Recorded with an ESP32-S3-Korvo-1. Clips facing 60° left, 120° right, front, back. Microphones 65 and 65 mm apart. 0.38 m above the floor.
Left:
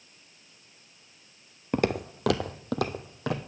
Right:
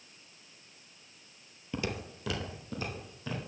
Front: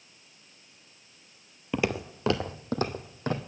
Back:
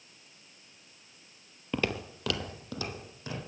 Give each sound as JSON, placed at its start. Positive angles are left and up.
{"t": 1.7, "sound": "footsteps", "azimuth_deg": 80, "distance_m": 0.5}